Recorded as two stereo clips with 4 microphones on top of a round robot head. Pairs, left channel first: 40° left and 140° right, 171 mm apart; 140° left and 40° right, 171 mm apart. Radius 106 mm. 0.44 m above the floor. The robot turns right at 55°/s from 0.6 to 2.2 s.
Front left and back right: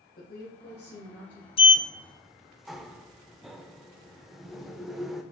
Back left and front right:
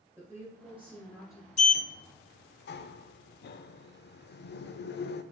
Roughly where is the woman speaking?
Ahead left.